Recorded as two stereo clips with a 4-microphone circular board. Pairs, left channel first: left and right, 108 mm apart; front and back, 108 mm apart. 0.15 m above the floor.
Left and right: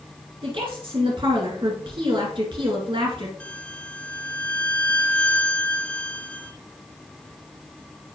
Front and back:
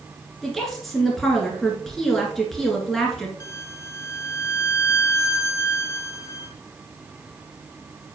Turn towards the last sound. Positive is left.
turn(degrees=25)